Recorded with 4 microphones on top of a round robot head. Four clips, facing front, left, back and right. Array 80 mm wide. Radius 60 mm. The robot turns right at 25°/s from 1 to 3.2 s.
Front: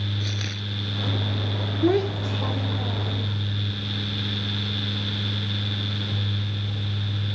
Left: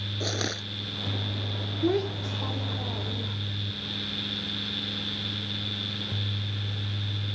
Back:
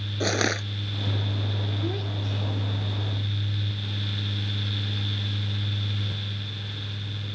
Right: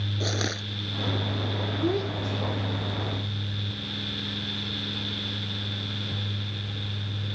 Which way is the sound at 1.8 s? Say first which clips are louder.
Left 2 dB, front 10 dB; 5° left.